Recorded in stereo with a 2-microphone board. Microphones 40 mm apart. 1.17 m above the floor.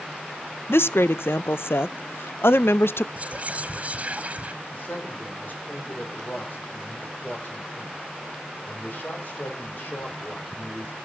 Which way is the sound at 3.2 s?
35° right (ahead or behind).